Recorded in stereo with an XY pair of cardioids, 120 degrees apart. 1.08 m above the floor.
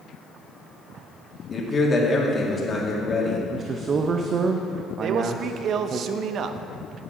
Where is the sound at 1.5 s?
25° left, 2.0 m.